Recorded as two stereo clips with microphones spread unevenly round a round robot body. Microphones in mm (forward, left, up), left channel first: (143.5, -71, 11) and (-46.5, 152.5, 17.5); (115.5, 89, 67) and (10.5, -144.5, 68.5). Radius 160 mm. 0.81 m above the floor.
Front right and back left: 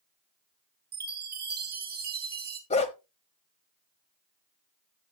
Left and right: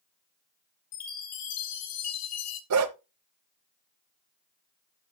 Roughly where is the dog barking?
Behind right.